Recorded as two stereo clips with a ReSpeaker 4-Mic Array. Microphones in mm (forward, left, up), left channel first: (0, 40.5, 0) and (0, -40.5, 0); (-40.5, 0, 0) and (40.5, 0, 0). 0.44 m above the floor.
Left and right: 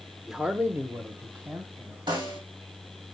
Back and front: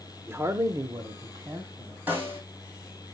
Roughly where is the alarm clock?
I don't hear an alarm clock.